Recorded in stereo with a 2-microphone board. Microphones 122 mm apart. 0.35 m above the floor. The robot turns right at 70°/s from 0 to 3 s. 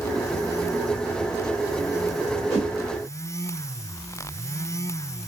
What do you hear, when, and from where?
2.5 s a whoosh: 10° left (ahead or behind), 1.5 m; by 2.7 s 5° left (ahead or behind), 1.5 m